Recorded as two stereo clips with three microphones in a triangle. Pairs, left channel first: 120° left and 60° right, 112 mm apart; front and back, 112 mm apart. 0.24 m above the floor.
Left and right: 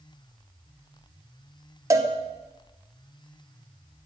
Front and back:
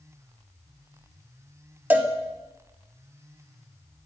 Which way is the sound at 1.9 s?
110° right.